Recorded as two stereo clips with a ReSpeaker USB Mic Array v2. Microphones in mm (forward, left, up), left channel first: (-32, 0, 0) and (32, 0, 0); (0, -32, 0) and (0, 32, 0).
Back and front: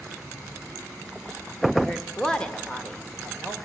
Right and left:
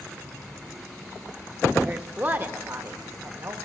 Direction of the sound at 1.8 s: 115° left.